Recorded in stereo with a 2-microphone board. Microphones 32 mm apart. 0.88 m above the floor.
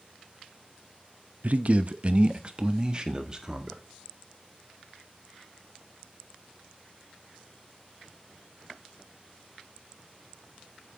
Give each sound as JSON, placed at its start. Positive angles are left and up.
{"t": 1.4, "sound": "a man speaking", "side_deg": -50, "distance_m": 0.8}